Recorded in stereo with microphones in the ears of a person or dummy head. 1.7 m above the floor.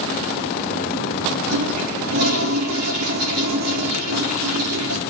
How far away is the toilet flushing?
About 5 m.